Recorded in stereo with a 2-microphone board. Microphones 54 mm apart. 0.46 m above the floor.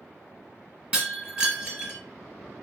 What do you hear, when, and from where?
0.9 s breaking glass: 20° right (ahead or behind), 1.3 m